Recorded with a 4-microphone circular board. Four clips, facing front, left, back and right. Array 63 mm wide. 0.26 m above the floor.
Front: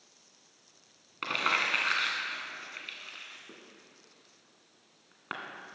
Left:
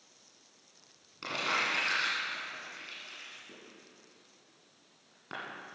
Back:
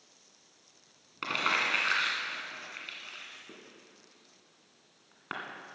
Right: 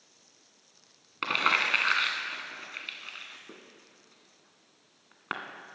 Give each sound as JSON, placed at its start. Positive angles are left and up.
{"t": 1.2, "sound": "crumpling", "azimuth_deg": -85, "distance_m": 1.9}